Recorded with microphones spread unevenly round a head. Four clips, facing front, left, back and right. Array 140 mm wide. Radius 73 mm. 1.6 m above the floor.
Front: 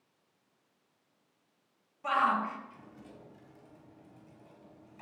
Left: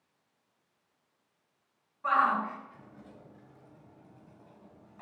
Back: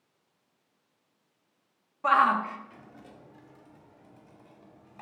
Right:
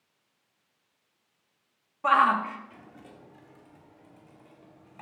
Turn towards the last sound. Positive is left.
turn(degrees=-125)